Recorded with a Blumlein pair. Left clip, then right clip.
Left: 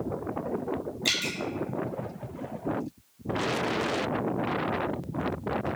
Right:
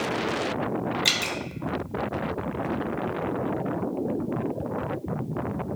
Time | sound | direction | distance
1.1 | dripping | 20° right | 0.7 m